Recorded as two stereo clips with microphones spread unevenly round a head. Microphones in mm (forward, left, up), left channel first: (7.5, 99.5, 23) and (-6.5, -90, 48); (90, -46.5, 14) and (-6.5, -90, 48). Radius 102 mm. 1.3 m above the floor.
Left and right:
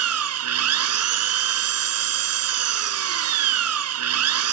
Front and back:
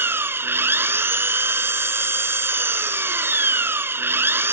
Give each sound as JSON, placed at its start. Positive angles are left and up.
{"t": 0.0, "sound": "an engine running", "azimuth_deg": -90}